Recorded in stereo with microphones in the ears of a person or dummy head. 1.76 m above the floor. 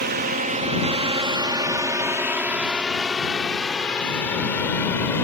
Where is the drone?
50° right (ahead or behind); by 5.2 s 15° left (ahead or behind).